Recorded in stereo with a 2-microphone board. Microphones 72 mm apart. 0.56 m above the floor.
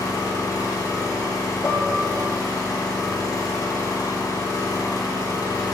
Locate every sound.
0.0 s an engine running: 75° left (ahead or behind), 4 m
1.6 s dishes clattering: 35° left (ahead or behind), 2.0 m